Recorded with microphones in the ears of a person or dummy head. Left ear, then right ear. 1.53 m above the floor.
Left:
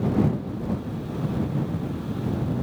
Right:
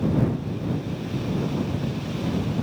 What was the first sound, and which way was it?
Only background noise.